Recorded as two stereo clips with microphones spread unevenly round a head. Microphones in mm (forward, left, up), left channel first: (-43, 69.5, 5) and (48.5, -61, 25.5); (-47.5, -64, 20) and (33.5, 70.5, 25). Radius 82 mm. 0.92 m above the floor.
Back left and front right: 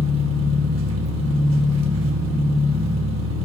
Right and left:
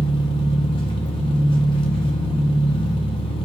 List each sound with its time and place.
0.0 s an engine running: 60° right, 1.4 m